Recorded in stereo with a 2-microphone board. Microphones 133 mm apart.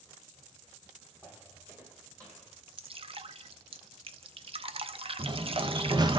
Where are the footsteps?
10° right (ahead or behind), 2 m; by 2.6 s 25° right (ahead or behind), 3.5 m.